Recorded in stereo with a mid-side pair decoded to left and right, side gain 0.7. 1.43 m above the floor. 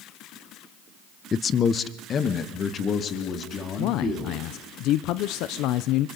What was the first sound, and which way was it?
A man speaking, 30° left.